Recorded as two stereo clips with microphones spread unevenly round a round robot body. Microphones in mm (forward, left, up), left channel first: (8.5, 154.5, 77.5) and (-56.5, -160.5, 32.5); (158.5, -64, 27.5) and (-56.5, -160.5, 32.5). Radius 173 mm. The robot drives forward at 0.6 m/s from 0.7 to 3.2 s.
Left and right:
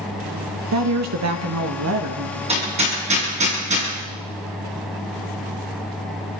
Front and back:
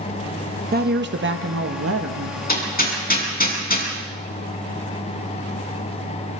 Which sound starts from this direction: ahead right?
Hammering, at 2.5 s.